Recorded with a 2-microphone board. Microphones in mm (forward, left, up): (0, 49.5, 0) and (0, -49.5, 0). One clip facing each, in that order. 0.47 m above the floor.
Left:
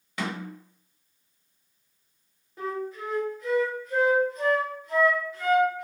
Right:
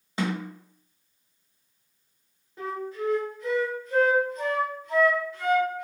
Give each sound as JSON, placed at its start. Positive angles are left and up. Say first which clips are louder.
{"t": 0.2, "sound": "a snare drum", "louder": "right 4 dB", "side_deg": -25, "distance_m": 0.9}
{"t": 2.6, "sound": "a flute", "louder": "right 1 dB", "side_deg": 5, "distance_m": 1.1}